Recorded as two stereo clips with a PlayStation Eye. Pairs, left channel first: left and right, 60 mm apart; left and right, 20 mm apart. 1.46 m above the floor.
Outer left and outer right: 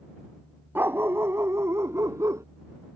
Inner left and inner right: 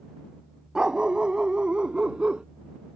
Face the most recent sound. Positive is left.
turn(degrees=-60)  # may be behind; listen again after turning